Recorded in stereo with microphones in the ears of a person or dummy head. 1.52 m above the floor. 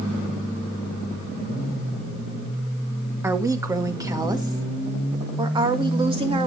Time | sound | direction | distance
3.2 | a woman speaking | 10° right (ahead or behind) | 1.5 m